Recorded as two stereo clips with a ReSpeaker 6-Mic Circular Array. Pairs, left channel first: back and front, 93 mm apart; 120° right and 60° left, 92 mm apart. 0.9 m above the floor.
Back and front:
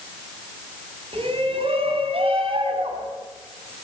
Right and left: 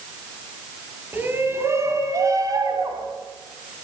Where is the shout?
10° right, 5.5 m; by 3.1 s 15° left, 6.5 m.